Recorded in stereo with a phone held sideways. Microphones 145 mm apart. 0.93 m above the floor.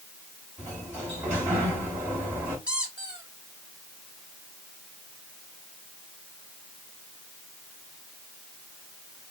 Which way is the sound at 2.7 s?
10° right (ahead or behind).